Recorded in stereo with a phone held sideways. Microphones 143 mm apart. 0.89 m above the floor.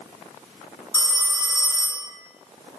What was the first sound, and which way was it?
A phone ringing, 25° right (ahead or behind).